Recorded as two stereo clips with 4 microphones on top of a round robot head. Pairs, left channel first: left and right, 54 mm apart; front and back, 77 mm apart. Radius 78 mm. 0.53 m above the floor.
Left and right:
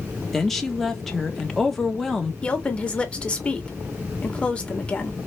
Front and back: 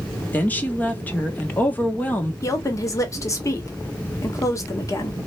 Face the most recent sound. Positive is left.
turn(degrees=30)